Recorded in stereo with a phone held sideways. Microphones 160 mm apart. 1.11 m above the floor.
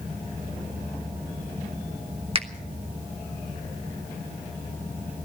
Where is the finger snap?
40° right (ahead or behind), 1.4 m.